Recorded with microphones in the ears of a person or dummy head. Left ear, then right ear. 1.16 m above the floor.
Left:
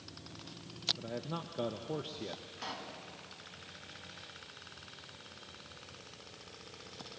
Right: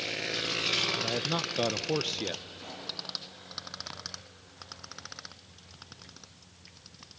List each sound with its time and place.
1.0 s a man speaking: 65° right (ahead or behind), 0.6 m
2.6 s a pop: 60° left (ahead or behind), 3.5 m